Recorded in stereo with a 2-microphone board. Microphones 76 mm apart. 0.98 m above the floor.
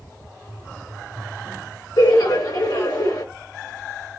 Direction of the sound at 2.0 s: 45° left (ahead or behind).